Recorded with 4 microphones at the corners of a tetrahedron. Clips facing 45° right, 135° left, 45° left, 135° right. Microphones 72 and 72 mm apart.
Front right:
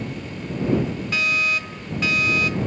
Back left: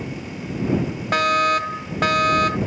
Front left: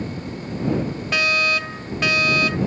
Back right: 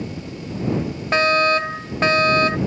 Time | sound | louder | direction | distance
1.1 | a fire alarm | back left 8 dB, back right 5 dB | 170° left | ?